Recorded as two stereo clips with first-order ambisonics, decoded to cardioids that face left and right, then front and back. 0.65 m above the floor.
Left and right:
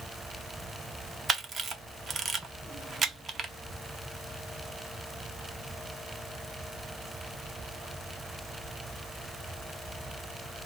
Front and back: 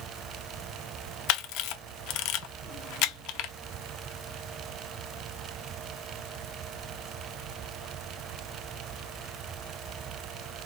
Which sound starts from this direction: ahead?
A camera shutter, at 1.3 s.